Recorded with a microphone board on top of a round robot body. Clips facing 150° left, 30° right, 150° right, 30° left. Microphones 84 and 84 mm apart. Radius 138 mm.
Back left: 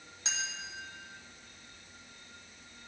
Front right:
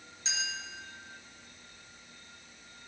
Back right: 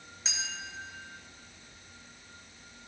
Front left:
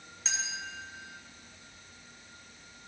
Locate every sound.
0.2 s a clink: 125° left, 1.4 m